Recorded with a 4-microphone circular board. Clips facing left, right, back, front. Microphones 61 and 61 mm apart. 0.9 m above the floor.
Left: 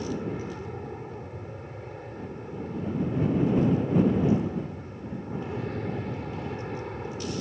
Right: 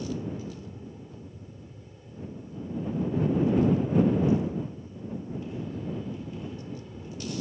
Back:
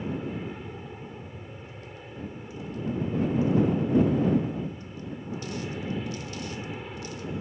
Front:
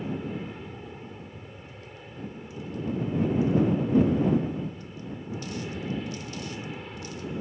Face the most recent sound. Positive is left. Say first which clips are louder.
# left 2 dB, even
turn(degrees=95)